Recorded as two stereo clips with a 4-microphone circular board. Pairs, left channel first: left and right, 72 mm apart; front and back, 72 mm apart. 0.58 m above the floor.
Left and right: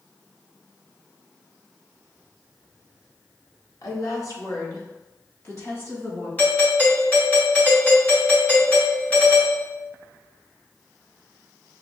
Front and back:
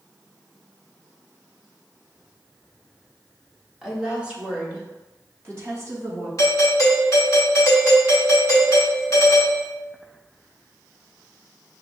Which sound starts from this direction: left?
A woman speaking, at 3.8 s.